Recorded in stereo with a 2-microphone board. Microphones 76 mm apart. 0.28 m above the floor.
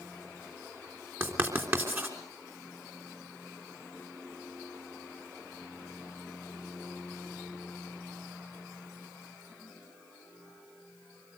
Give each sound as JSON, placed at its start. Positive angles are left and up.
{"t": 1.2, "sound": "writing", "side_deg": -30, "distance_m": 3.5}